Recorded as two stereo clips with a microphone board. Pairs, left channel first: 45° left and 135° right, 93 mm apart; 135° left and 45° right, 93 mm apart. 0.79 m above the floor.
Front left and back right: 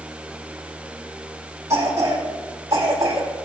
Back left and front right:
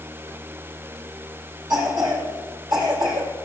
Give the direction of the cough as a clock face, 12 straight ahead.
3 o'clock.